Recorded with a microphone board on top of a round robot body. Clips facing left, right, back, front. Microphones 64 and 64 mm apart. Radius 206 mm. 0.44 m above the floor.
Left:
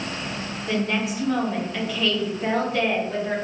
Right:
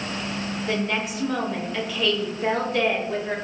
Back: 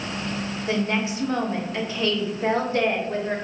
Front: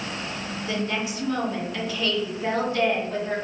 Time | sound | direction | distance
0.7 | a woman speaking | straight behind | 1.0 m